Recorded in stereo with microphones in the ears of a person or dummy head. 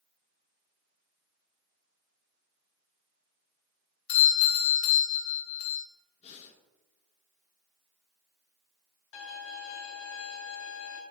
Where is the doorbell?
50° left (ahead or behind), 1.8 m.